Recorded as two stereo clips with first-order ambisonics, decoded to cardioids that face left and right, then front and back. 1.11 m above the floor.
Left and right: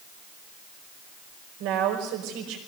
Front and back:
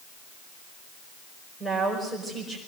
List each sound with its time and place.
1.6 s a woman speaking: 85° right, 5 m